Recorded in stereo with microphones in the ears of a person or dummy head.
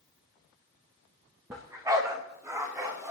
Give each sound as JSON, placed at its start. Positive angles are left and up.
{"t": 1.5, "sound": "a dog barking", "side_deg": -10, "distance_m": 1.2}